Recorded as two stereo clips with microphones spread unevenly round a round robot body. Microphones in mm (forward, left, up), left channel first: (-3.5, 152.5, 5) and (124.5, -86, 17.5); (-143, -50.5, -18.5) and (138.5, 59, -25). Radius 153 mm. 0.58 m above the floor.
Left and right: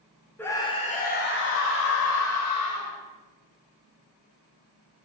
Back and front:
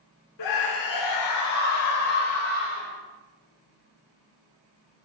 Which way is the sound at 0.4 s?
160° right.